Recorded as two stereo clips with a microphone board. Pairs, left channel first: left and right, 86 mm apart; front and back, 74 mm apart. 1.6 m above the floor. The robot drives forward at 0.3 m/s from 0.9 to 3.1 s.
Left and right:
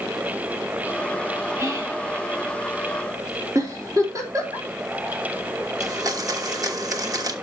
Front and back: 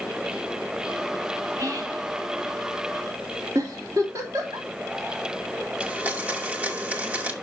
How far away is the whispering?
About 2.5 m.